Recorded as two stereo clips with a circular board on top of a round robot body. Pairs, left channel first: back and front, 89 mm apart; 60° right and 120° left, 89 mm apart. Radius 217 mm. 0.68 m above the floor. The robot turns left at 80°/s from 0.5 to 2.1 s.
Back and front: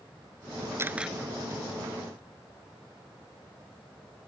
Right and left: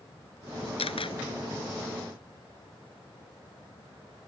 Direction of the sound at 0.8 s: 60° right.